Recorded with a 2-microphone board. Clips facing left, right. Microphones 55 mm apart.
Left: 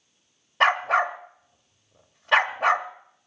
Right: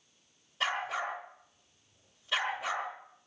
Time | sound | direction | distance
0.6 | a dog barking | 60° left (ahead or behind) | 1.3 m